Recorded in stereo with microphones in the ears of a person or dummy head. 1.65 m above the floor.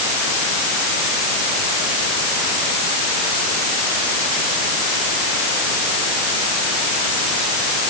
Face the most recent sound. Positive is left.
No sound to turn to.